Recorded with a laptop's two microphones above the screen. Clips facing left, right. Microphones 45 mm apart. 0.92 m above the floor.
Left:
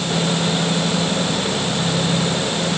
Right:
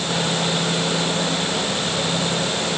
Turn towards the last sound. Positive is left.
No sound to turn to.